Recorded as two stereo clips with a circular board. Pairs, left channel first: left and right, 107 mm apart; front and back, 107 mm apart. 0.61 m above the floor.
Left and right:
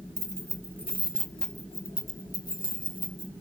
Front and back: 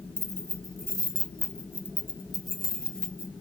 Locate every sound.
0.2 s keys jangling: 135° right, 0.9 m; by 3.3 s 80° left, 1.1 m